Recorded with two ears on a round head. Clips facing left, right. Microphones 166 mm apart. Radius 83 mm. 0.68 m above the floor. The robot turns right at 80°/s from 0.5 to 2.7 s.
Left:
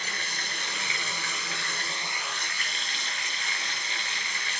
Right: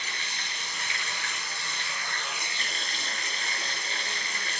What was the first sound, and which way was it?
Running water, 35° left.